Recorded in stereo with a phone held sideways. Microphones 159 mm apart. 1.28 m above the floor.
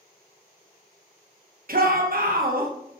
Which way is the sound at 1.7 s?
65° right (ahead or behind).